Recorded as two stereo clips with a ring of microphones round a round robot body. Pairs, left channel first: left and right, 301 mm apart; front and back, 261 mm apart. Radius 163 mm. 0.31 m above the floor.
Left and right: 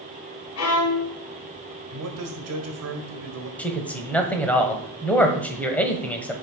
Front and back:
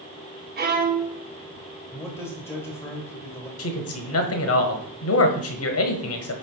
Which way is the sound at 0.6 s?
125° left.